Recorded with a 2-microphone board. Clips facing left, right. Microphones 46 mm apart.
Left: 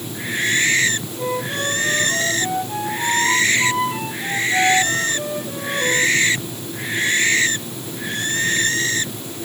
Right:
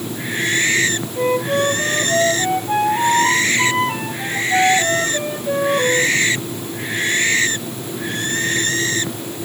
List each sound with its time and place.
1.2 s a flute: 60° right (ahead or behind), 2 m